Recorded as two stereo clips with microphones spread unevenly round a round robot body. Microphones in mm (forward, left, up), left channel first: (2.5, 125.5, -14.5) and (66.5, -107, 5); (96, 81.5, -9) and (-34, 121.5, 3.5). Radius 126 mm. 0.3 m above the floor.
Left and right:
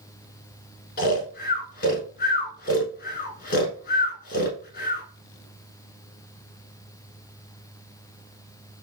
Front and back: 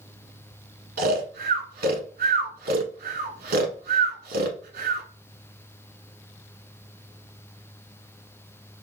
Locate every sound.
1.0 s snoring: 160° left, 0.9 m